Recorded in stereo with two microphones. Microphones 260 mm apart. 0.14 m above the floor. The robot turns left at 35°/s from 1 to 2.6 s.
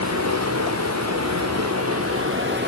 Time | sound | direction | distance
0.0 | running water | 80° right | 4 m